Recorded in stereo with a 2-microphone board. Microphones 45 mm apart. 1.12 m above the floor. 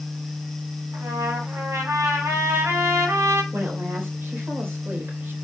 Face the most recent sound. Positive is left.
turn(degrees=-60)  # may be behind; listen again after turning